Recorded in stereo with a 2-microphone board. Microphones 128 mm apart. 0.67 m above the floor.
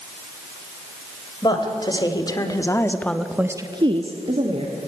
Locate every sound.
1.4 s a woman speaking: 35° left (ahead or behind), 3 m; by 4.8 s 50° right (ahead or behind), 2 m